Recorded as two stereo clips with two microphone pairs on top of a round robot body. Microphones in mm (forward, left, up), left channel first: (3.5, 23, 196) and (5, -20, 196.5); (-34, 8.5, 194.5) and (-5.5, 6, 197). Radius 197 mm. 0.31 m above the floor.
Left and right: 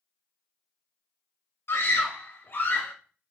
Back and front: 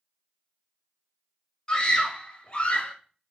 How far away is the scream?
About 2.5 m.